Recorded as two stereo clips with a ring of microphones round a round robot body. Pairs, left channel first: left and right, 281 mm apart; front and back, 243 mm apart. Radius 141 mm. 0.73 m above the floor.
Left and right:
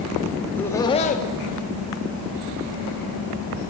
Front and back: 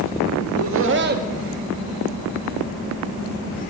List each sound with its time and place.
0.4 s laughter: straight behind, 1.7 m; by 3.6 s 45° left, 3 m